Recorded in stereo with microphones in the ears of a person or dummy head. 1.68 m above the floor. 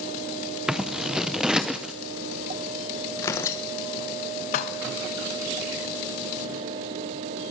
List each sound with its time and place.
0.7 s scissors: centre (ahead or behind), 0.7 m
3.2 s tearing paper: 20° left (ahead or behind), 1.1 m
4.5 s dishes clattering: 45° left (ahead or behind), 1.2 m